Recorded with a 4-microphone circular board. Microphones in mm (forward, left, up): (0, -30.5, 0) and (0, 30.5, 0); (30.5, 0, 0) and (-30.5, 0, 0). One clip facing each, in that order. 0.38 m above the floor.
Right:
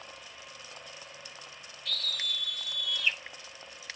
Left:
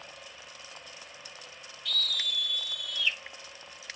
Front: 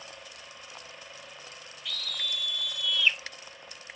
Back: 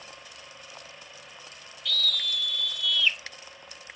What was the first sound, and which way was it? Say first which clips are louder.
A scream: left 2 dB, back 6 dB; 60° right.